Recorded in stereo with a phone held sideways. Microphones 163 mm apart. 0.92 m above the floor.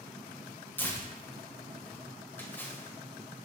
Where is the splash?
10° left (ahead or behind), 0.7 m.